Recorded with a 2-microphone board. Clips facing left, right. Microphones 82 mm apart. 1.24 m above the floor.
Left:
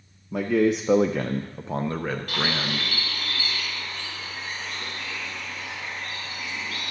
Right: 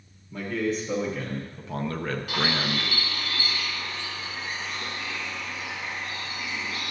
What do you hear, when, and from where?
0.3 s a man speaking: 75° left (ahead or behind), 0.8 m; by 2.9 s 5° right (ahead or behind), 1.0 m
2.3 s a bird: 5° right (ahead or behind), 2.5 m